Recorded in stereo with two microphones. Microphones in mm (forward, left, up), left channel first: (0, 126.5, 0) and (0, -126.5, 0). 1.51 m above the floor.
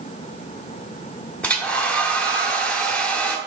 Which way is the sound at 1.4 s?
5° left (ahead or behind).